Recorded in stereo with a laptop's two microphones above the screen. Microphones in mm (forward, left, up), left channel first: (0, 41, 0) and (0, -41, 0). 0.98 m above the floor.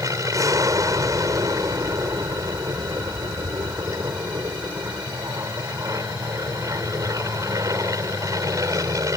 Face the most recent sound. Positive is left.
turn(degrees=-40)  # may be behind; listen again after turning